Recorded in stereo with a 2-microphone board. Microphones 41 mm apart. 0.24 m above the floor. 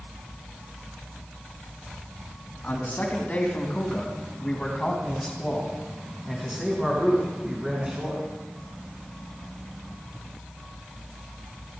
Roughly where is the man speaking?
Left.